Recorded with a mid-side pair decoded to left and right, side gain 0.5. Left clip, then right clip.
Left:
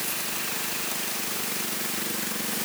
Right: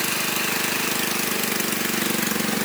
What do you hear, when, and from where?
Only background noise.